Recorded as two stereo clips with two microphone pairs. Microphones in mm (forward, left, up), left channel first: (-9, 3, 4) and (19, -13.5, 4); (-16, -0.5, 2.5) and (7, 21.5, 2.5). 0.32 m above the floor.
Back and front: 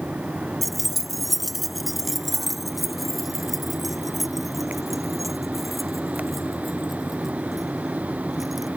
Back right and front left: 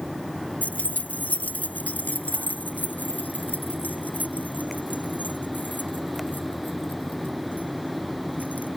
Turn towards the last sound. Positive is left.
turn(degrees=-115)